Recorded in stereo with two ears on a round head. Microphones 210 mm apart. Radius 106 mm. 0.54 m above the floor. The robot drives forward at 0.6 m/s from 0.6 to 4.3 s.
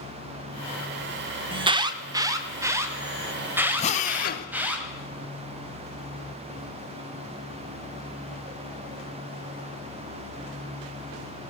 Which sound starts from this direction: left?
A drill, at 3.8 s.